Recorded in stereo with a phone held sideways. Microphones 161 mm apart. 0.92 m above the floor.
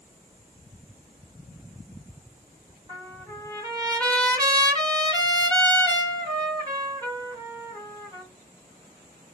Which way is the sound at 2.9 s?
25° right (ahead or behind).